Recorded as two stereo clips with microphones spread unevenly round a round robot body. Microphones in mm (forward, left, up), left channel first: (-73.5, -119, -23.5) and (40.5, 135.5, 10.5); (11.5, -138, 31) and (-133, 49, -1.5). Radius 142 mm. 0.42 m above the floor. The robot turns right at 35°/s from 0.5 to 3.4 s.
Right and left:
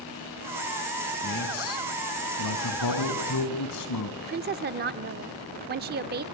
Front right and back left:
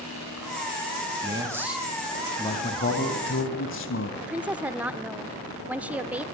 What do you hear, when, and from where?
1.2 s a man speaking: 165° right, 3 m; by 4.1 s 90° right, 3 m
4.2 s a woman speaking: 70° left, 0.8 m